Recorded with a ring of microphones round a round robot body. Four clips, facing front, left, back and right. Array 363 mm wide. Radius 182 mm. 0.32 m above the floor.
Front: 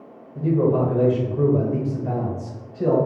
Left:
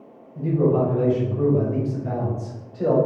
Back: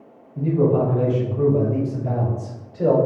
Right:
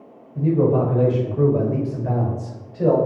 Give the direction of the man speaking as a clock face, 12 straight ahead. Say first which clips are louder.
Right 2 dB, back 1 dB; 1 o'clock.